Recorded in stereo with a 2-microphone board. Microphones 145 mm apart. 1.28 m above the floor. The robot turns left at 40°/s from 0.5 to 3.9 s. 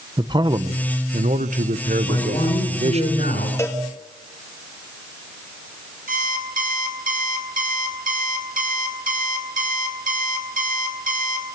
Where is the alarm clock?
80° right, 4 m.